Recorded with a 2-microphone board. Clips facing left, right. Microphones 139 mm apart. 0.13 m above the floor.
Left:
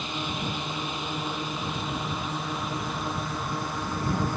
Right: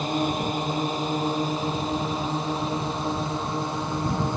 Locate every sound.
0.0 s a drone: 40° right (ahead or behind); by 4.4 s 20° right (ahead or behind)